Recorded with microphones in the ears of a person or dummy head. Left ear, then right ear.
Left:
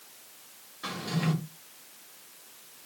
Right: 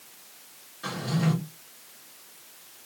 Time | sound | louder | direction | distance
0.8 | a drawer | right 2 dB | 10° left (ahead or behind) | 1.8 m